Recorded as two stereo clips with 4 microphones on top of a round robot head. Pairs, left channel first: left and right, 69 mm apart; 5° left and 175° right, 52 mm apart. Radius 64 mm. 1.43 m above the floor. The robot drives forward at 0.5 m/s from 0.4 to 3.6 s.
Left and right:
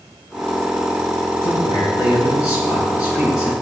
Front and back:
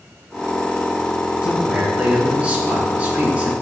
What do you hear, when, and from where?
1.4 s a man speaking: 115° left, 4 m; by 3.5 s 125° left, 4.5 m